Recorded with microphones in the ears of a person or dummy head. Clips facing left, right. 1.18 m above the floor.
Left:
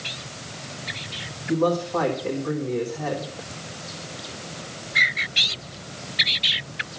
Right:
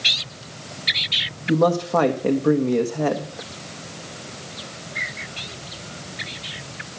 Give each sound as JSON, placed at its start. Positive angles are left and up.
{"t": 1.5, "sound": "a man speaking", "side_deg": -75, "distance_m": 1.2}